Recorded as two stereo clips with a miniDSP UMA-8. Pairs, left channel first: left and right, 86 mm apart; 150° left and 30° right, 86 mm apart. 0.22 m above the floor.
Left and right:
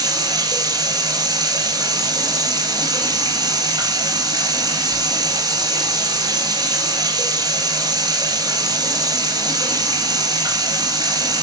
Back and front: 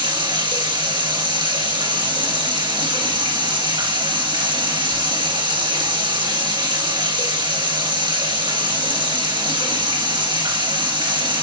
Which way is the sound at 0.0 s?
55° right.